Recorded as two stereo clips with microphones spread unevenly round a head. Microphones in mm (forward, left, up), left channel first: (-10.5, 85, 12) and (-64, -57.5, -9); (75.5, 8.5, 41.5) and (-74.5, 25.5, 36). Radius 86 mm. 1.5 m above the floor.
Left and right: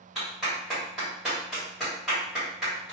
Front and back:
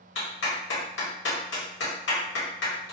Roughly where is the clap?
Ahead.